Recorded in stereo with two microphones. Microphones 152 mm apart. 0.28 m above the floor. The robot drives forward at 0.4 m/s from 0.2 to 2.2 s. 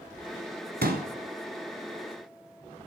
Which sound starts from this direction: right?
A pop, at 0.8 s.